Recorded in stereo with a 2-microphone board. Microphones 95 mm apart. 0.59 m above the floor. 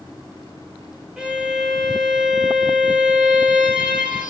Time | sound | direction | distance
1.2 | a violin | 10° right (ahead or behind) | 1.2 m